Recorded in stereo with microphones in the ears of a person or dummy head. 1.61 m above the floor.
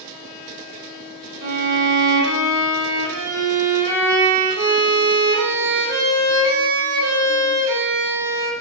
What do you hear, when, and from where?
1.4 s a violin: 70° right (ahead or behind), 0.8 m